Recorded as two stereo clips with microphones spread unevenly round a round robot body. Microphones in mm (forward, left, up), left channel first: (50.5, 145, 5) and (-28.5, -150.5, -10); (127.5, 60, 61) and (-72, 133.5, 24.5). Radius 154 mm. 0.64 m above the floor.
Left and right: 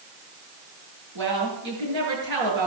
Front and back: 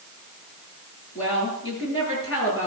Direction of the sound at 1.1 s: 95° right.